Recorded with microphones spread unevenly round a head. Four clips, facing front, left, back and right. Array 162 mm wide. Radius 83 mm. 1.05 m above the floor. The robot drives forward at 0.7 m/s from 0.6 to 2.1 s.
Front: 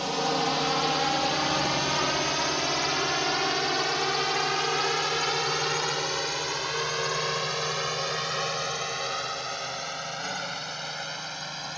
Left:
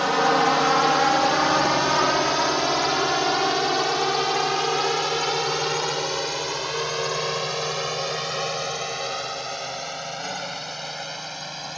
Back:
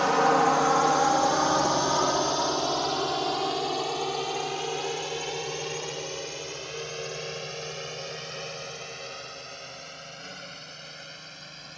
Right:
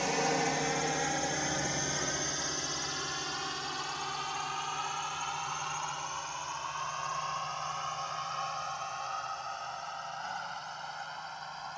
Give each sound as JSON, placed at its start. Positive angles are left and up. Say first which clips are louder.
{"t": 0.0, "sound": "a drone", "louder": "left 11 dB, back 6 dB", "azimuth_deg": 130}